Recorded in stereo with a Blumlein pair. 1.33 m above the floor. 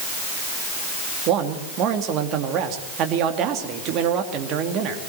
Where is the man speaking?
35° right, 2.5 m.